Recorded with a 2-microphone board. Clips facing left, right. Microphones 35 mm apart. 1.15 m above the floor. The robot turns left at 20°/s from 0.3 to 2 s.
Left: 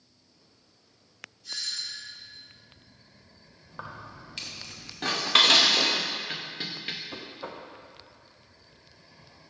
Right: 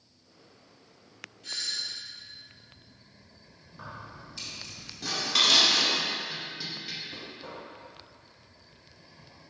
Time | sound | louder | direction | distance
1.4 | a doorbell | right 1 dB | 55° right (ahead or behind) | 1.8 m
3.7 | keys jangling | left 2 dB | 50° left (ahead or behind) | 1.1 m
5.0 | dishes clattering | left 4 dB | 40° left (ahead or behind) | 0.6 m
7.1 | knocking | left 2 dB | 45° left (ahead or behind) | 0.7 m